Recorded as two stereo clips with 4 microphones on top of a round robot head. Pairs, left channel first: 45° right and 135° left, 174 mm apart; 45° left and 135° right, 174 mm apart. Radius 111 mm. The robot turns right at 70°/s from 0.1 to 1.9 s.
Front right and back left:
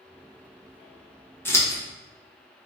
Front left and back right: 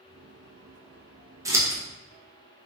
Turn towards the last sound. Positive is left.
turn(degrees=-65)